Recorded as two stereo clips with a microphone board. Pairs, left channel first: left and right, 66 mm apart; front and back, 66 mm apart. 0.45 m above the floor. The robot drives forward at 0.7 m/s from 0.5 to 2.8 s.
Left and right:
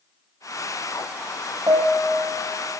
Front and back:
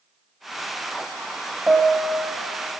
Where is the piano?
110° right, 2 m; by 2.6 s 125° right, 2.5 m.